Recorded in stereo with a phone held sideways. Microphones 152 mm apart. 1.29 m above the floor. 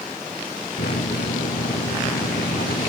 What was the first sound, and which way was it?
A microwave, 90° left.